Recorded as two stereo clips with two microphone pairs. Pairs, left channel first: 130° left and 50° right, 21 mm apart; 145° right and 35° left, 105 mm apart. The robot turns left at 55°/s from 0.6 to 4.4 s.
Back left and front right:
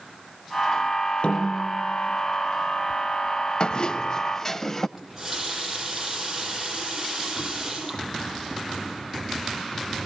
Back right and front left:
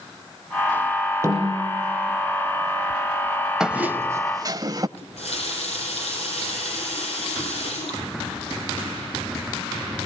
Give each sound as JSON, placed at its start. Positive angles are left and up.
{"t": 1.2, "sound": "a snare drum", "azimuth_deg": 95, "distance_m": 7.0}
{"t": 3.6, "sound": "a squeak", "azimuth_deg": 115, "distance_m": 0.7}
{"t": 5.0, "sound": "a running tap", "azimuth_deg": -130, "distance_m": 6.5}